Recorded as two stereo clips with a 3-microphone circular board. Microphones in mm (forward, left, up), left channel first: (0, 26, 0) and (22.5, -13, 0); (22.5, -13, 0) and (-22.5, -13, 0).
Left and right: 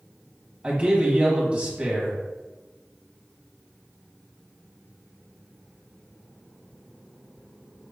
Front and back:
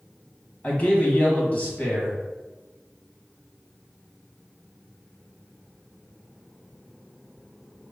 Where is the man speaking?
20° right, 1.2 m.